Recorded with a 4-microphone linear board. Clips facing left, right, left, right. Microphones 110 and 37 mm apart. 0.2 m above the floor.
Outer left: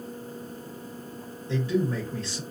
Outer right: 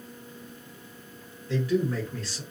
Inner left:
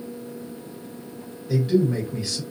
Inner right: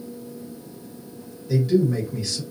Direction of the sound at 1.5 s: 25° left (ahead or behind).